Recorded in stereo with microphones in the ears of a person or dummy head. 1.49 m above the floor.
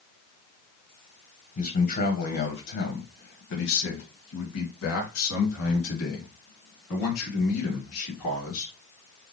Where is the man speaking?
35° left (ahead or behind), 1.1 m; by 8.7 s 75° left (ahead or behind), 4 m.